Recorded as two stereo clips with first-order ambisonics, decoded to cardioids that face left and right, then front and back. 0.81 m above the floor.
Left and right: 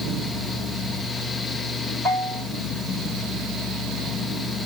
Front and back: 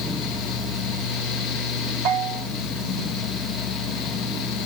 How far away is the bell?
About 2.0 m.